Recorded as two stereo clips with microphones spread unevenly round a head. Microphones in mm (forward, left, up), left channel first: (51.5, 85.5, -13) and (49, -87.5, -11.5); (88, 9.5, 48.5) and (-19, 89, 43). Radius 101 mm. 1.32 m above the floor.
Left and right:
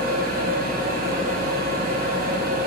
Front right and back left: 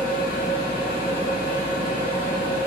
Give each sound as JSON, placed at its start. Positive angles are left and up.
{"t": 0.0, "sound": "a machine running", "azimuth_deg": -55, "distance_m": 0.8}